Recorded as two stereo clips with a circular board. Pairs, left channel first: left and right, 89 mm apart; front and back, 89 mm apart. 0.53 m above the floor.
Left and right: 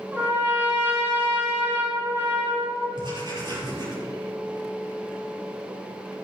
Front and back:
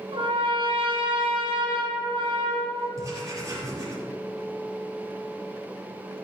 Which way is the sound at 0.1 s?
160° right.